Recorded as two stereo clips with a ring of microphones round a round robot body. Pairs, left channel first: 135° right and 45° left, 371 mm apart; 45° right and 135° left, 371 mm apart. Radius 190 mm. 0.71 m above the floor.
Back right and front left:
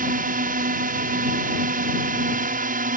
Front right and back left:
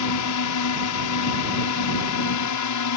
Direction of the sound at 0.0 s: 20° right.